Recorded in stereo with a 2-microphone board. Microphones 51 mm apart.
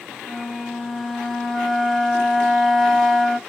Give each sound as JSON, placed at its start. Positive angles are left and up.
{"t": 0.2, "sound": "a flute", "side_deg": 0, "distance_m": 1.0}